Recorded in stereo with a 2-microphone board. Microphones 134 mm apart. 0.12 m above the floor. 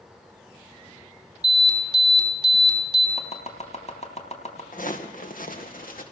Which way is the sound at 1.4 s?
25° left (ahead or behind).